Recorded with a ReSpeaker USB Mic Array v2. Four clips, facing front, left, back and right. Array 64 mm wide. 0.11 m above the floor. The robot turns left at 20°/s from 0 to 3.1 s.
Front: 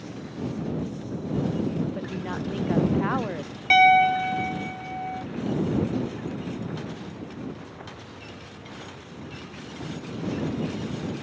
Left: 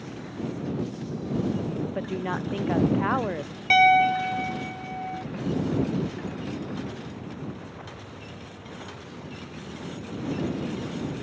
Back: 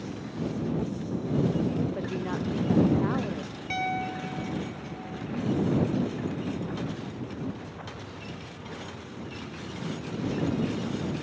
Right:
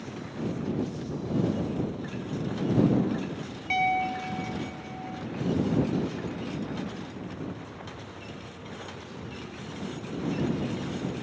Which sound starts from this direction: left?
A woman speaking, at 1.9 s.